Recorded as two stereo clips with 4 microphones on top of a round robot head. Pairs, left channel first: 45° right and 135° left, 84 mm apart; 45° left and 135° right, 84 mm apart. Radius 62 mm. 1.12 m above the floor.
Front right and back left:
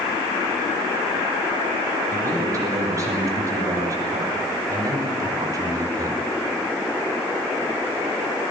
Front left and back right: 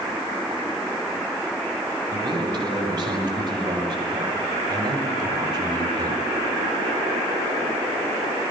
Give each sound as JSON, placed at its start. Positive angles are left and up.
{"t": 2.1, "sound": "a man speaking", "azimuth_deg": -170, "distance_m": 9.5}